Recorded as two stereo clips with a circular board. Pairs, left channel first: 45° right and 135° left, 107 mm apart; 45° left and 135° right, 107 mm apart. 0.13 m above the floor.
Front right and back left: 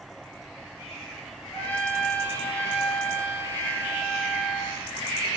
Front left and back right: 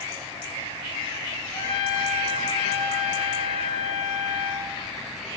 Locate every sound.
1.5 s a trumpet: 30° left, 4 m